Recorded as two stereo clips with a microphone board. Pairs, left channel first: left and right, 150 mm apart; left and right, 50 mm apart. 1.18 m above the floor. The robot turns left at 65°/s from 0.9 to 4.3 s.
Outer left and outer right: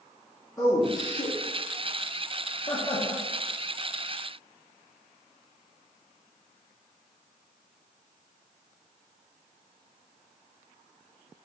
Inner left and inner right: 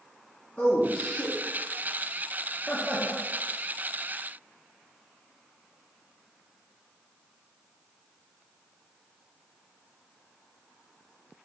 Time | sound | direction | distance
0.6 | a man speaking | 20° left (ahead or behind) | 0.9 m